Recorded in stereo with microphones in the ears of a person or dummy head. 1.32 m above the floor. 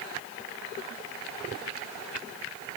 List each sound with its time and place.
Only background noise.